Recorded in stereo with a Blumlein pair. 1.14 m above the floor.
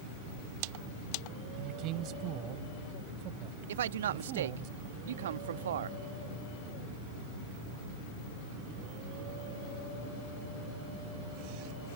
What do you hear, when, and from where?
1.6 s a man speaking: 40° right
3.7 s a man speaking: 60° right